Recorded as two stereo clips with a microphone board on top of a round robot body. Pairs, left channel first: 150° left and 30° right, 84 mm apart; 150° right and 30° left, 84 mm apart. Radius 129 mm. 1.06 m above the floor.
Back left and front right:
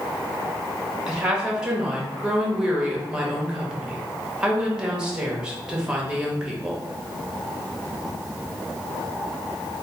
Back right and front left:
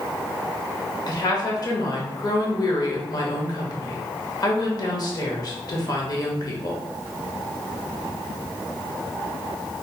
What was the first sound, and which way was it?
A woman speaking, 110° right.